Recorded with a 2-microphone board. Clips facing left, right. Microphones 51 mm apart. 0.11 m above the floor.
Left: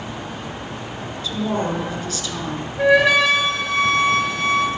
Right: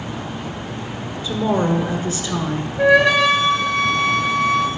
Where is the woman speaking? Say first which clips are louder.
Right 4 dB; 25° right (ahead or behind), 1.3 m.